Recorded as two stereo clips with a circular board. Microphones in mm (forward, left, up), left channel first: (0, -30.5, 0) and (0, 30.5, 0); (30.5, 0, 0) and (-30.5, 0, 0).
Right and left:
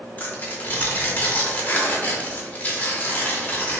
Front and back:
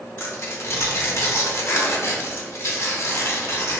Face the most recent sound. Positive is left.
turn(degrees=-30)